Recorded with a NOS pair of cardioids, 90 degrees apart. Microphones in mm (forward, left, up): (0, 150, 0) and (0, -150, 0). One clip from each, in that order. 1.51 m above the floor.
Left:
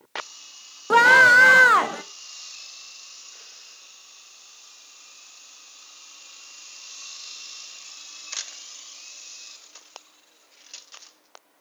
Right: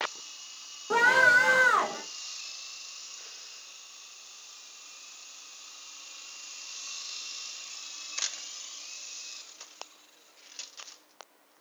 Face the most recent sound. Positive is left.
turn(degrees=45)